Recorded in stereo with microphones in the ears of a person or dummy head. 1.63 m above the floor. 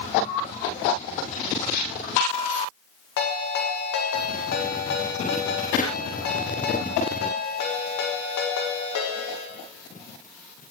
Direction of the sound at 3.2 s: 65° left (ahead or behind).